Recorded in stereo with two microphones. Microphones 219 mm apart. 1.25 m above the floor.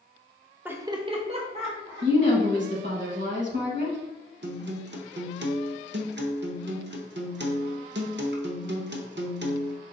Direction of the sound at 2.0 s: 55° right (ahead or behind).